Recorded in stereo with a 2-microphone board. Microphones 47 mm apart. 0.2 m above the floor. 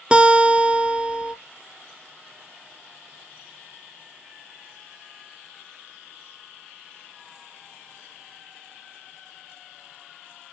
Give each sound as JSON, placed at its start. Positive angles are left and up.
{"t": 0.1, "sound": "a guitar", "side_deg": -25, "distance_m": 0.9}